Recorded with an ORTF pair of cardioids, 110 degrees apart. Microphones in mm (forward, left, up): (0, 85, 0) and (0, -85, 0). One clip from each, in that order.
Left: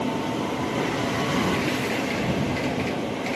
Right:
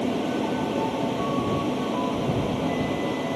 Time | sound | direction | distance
0.0 | a fan | 15° right | ?